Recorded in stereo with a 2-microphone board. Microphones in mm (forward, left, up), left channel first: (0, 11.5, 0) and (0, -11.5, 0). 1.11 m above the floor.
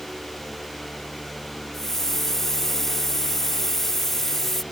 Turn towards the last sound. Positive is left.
turn(degrees=10)  # may be behind; listen again after turning